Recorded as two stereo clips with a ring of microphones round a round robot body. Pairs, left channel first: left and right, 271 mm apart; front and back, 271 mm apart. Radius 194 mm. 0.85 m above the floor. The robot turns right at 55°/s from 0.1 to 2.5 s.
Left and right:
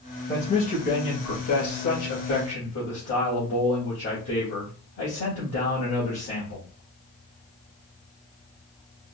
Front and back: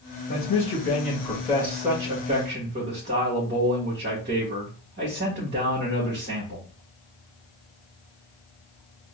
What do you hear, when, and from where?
0.3 s a man speaking: 10° left, 1.7 m; by 6.7 s 130° left, 1.7 m